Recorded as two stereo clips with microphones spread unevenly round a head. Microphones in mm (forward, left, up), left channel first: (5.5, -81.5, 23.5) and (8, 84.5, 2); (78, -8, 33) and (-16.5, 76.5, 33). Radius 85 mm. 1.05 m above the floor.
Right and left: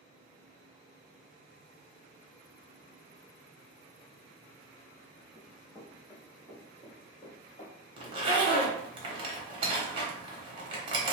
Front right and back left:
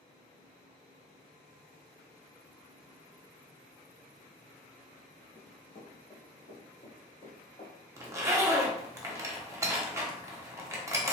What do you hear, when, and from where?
5.3 s running footsteps: 15° right, 1.8 m; by 7.7 s 80° right, 1.5 m
8.0 s a zipper: 85° left, 0.8 m